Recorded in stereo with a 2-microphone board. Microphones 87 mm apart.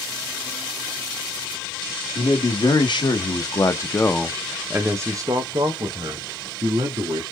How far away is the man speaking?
About 1.8 m.